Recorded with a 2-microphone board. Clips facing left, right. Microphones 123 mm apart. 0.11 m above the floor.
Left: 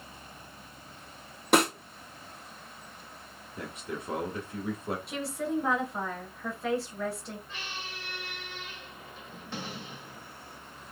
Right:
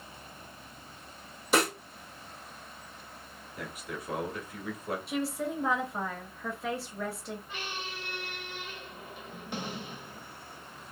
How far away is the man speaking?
About 1.3 m.